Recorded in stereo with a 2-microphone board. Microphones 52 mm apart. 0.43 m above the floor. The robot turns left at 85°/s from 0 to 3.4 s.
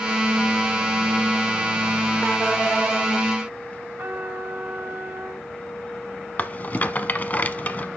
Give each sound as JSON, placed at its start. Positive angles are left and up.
{"t": 4.0, "sound": "a trumpet", "side_deg": -45, "distance_m": 2.5}
{"t": 6.4, "sound": "a rattle", "side_deg": 35, "distance_m": 0.7}